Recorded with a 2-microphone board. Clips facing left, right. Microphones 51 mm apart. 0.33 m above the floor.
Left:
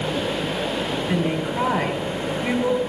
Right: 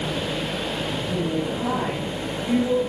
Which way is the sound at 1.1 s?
75° left (ahead or behind).